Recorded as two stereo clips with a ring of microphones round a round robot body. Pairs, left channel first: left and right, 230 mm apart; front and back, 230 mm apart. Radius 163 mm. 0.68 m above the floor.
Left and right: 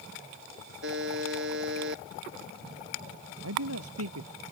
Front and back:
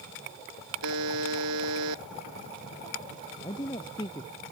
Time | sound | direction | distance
0.8 | a buzzer | 145° right | ?
3.4 | a man speaking | 75° right | ?